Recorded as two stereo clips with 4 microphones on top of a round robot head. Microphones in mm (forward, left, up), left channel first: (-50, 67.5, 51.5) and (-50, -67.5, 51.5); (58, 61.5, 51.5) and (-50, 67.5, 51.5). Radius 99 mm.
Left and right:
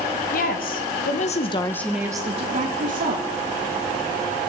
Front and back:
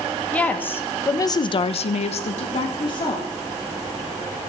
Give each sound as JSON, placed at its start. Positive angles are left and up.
{"t": 0.3, "sound": "a woman speaking", "azimuth_deg": 75, "distance_m": 2.0}